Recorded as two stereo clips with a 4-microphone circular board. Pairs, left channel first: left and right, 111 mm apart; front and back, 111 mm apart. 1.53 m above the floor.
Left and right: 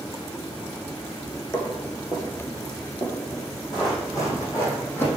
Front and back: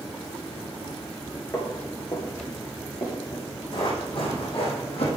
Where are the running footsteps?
40° left, 4 m; by 5.1 s 20° left, 4 m.